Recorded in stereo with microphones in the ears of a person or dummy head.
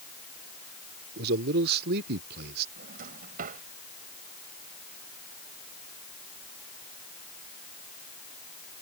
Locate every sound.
1.2 s a man speaking: 55° right (ahead or behind)
2.8 s a drawer: 50° right (ahead or behind)